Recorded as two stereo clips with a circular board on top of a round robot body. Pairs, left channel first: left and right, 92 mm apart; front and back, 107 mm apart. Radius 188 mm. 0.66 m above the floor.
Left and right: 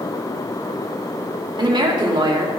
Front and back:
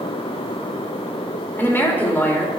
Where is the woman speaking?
70° right, 2.5 m.